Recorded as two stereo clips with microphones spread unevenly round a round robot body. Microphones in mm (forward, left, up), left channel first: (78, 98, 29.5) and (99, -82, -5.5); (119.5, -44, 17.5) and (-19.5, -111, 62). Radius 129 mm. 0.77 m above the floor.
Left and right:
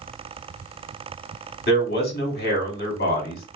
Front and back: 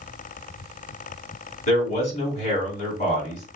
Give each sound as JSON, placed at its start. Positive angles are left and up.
{"t": 1.7, "sound": "a man speaking", "azimuth_deg": 65, "distance_m": 1.6}